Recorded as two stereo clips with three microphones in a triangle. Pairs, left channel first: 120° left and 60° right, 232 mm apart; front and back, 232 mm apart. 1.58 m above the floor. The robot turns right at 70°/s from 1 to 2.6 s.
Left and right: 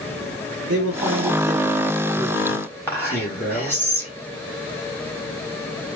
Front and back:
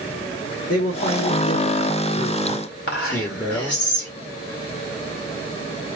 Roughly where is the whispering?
Ahead left.